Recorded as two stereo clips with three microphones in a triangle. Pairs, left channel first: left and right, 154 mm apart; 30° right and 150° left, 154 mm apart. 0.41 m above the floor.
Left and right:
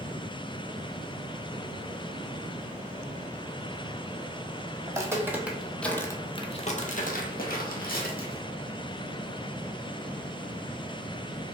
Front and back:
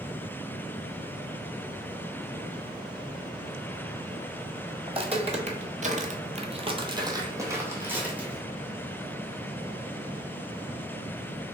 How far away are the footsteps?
About 0.9 m.